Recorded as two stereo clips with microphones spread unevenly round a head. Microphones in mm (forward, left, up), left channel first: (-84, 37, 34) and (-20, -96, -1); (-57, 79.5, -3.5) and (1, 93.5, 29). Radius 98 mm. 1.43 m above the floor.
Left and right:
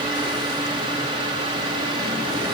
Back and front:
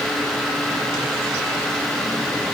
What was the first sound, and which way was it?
Only background noise.